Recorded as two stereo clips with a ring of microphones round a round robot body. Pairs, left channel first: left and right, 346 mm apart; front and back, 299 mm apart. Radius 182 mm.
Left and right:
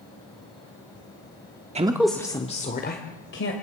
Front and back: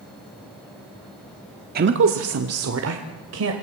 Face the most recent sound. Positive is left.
turn(degrees=145)